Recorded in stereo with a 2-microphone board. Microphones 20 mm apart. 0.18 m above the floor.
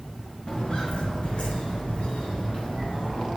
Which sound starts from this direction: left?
Footsteps, at 0.5 s.